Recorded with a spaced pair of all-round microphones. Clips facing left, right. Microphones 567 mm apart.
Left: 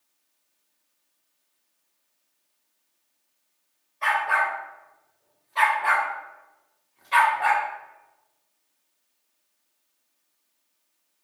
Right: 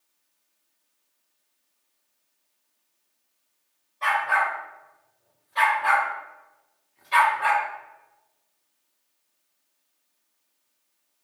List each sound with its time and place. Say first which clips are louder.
4.0 s a dog barking: even; 55° right (ahead or behind), 3 m; by 7.7 s 20° left (ahead or behind), 1.4 m